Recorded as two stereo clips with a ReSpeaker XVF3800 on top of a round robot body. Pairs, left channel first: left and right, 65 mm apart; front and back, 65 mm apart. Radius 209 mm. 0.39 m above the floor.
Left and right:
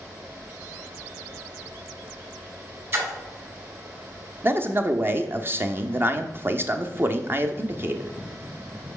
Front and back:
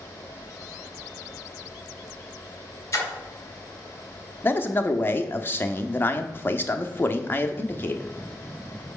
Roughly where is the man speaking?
Ahead right.